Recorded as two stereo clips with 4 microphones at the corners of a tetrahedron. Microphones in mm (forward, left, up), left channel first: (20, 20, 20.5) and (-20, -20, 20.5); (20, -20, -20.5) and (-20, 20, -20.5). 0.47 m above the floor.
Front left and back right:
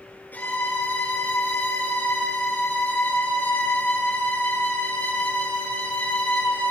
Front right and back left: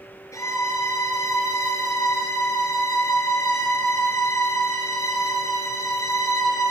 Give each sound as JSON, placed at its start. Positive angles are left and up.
{"t": 0.3, "sound": "a violin", "azimuth_deg": -15, "distance_m": 5.0}